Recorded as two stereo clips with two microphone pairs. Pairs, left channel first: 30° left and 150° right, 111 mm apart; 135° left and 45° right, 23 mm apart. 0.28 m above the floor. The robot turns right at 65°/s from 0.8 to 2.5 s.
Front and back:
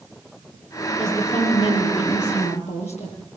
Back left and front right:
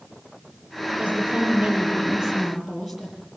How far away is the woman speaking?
About 7 m.